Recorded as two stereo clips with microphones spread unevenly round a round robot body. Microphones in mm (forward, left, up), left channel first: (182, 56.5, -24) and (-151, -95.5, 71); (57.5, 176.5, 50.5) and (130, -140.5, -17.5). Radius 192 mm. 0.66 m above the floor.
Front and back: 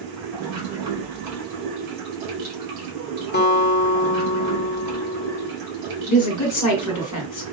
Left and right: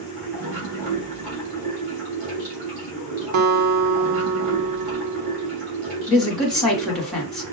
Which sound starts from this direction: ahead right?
A guitar, at 3.3 s.